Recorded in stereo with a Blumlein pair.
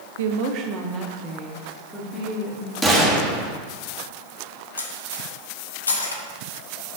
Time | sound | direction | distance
0.2 | a woman speaking | 60° right | 0.6 m
2.8 | a gunshot | straight ahead | 1.4 m
4.8 | cutlery clinking | 70° left | 0.8 m